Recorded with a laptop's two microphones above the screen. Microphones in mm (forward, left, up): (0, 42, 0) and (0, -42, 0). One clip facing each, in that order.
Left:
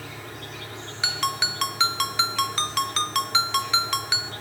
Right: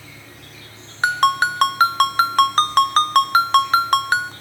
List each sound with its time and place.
0.0 s an insect: 70° left (ahead or behind), 3.5 m
1.0 s a ringtone: 50° right (ahead or behind), 0.5 m